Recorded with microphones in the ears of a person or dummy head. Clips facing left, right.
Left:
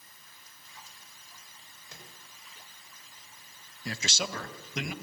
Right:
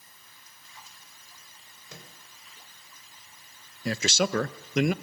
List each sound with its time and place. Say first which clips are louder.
1.9 s a microwave: right 4 dB; 85° right, 4.5 m
3.9 s a man speaking: right 9 dB; 55° right (ahead or behind), 0.7 m